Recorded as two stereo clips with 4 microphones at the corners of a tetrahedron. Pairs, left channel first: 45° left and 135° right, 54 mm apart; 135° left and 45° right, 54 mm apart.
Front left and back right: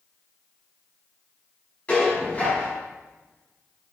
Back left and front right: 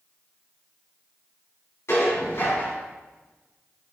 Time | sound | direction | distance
1.9 | dishes clattering | 110° left | 3 m